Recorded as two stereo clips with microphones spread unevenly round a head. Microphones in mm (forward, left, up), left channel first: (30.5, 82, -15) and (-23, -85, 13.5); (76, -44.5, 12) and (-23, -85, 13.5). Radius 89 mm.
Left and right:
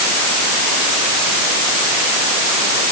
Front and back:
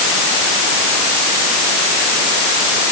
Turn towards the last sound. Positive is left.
No sound to turn to.